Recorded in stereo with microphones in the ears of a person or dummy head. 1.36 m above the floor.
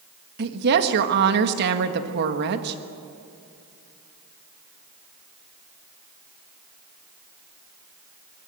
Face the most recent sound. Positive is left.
turn(degrees=-55)  # may be behind; listen again after turning